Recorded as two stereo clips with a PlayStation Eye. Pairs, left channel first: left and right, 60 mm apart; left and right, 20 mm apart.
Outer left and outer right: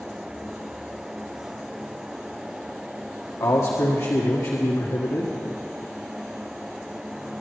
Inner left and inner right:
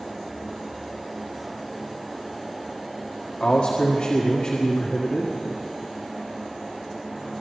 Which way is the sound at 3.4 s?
80° left.